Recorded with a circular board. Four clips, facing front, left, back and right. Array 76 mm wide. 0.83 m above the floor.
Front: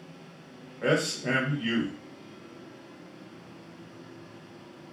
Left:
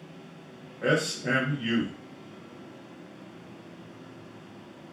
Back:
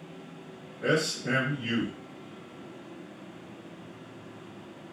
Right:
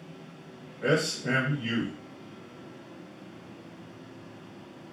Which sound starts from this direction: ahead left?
A man speaking, at 0.8 s.